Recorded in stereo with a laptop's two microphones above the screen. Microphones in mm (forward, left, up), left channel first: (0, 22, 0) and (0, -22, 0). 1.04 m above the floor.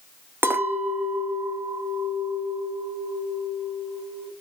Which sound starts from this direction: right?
A clink, at 0.4 s.